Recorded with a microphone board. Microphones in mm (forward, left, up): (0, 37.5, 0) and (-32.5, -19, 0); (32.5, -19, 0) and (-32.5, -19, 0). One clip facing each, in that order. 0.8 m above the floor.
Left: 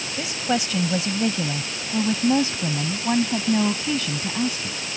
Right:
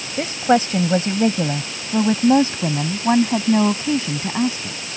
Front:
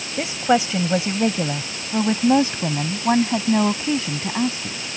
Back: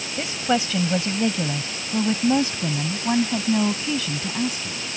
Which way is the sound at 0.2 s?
70° right.